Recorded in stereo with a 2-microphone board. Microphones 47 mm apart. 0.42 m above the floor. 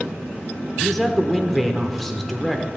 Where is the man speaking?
5° left (ahead or behind), 0.8 m.